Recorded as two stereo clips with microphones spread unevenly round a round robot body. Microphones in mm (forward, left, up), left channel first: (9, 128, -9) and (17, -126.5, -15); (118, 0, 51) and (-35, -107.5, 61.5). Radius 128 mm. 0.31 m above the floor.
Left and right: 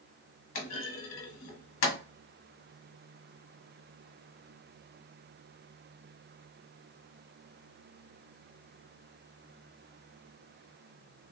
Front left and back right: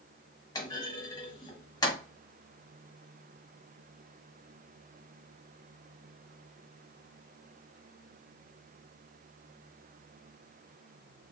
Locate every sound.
0.6 s a clunk: 95° left, 1.1 m